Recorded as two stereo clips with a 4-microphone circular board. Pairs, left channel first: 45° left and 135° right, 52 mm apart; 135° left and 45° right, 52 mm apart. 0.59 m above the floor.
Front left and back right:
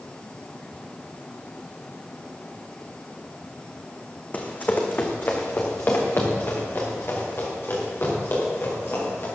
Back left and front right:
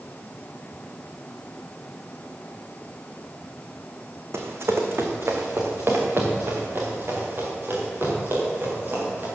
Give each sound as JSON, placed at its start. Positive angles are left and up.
{"t": 4.3, "sound": "running footsteps", "azimuth_deg": -15, "distance_m": 1.8}